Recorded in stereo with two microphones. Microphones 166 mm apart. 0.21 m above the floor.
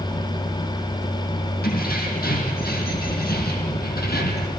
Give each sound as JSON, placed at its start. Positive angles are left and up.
{"t": 1.6, "sound": "keys jangling", "side_deg": 75, "distance_m": 7.5}